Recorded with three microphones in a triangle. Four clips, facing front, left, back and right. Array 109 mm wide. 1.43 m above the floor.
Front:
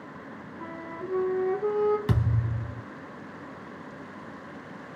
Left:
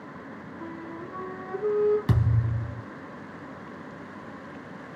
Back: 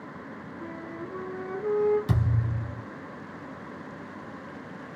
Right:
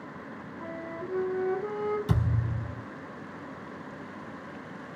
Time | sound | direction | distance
0.6 | a flute | 10° left | 1.3 m
2.1 | a thud | 45° left | 2.5 m